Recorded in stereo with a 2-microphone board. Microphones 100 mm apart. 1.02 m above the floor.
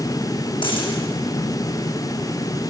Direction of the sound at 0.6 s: 55° left (ahead or behind).